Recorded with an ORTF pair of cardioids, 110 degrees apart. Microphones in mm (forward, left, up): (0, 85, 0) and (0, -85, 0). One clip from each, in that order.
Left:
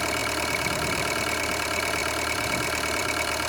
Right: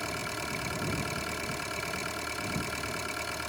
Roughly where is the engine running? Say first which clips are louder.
Left 9 dB; ahead left.